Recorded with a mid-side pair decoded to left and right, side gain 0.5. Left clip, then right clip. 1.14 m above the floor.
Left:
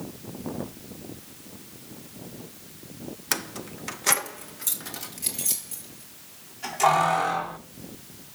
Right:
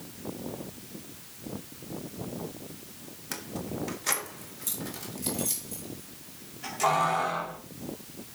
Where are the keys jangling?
60° left, 0.7 m; by 7.6 s 25° left, 5.5 m.